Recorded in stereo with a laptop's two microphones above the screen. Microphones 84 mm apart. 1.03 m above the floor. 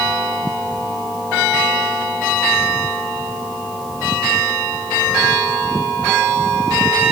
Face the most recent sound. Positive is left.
No sound to turn to.